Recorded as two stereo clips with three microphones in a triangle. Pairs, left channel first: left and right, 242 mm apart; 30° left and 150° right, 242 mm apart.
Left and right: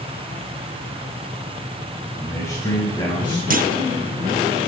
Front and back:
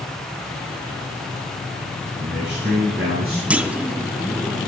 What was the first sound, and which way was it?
A man speaking, 170° left.